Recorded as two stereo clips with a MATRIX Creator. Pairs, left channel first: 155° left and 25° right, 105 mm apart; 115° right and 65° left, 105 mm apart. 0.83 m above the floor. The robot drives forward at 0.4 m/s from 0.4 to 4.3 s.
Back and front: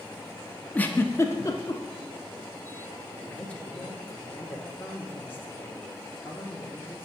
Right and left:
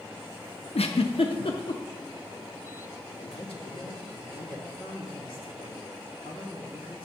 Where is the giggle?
130° right, 0.6 m; by 1.8 s 150° right, 0.9 m.